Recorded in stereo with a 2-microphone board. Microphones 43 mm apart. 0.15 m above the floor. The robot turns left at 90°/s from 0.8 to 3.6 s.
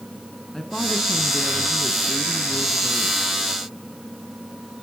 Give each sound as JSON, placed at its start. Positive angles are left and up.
{"t": 0.5, "sound": "a woman speaking", "azimuth_deg": 170, "distance_m": 2.0}